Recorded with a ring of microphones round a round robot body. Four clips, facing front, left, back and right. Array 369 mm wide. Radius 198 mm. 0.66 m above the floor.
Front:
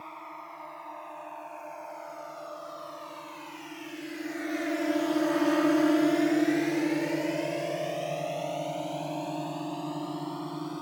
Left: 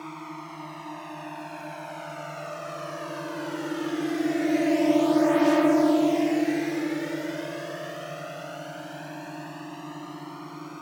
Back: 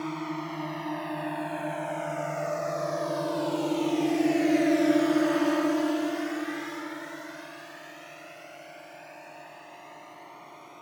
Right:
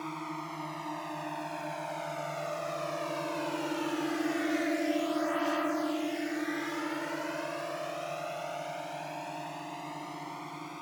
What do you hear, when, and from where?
0.0 s a drone: 175° left; by 10.8 s 20° left